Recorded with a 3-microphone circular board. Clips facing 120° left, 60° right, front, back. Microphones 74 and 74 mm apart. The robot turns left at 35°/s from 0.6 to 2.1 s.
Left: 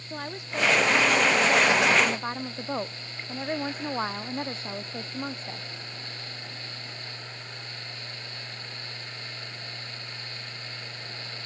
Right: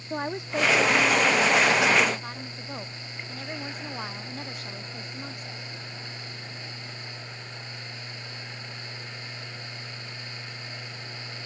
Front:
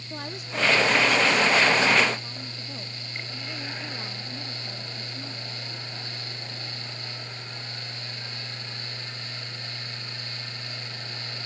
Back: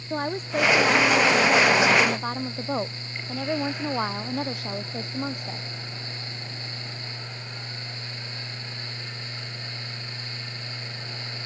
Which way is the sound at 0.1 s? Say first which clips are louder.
Right 5 dB, back 8 dB; 130° right.